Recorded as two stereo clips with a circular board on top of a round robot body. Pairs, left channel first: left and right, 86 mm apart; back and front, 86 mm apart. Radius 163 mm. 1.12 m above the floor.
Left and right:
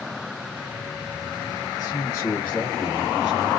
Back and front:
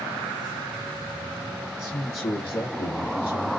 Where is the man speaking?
145° left, 1.2 m; by 3.5 s 160° right, 1.1 m.